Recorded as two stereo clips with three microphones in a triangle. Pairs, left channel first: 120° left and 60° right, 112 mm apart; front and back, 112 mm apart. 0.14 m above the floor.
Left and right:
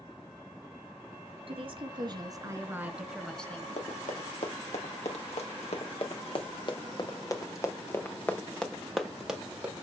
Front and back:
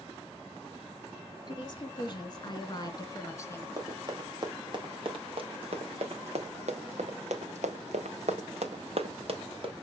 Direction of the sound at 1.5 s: 45° right.